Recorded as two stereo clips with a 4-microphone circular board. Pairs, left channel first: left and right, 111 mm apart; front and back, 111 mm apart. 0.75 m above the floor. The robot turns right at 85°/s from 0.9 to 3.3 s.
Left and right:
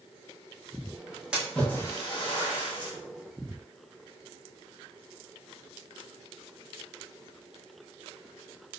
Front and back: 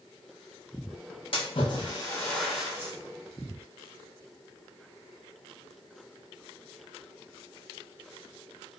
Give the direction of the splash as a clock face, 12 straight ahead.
12 o'clock.